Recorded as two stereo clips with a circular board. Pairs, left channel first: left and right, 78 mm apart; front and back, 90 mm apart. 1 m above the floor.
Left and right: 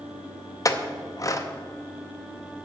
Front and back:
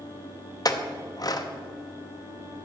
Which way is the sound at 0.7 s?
45° left.